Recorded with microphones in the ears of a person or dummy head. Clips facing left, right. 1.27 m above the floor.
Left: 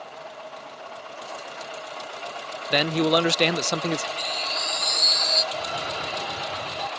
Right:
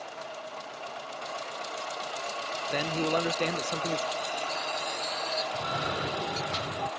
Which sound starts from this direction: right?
A cough, at 5.5 s.